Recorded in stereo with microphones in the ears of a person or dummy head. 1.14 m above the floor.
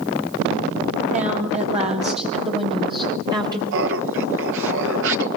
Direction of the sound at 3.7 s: 60° right (ahead or behind).